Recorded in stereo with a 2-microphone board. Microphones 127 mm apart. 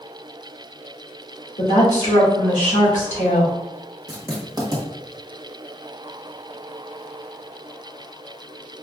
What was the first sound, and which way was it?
A woman speaking, 85° left.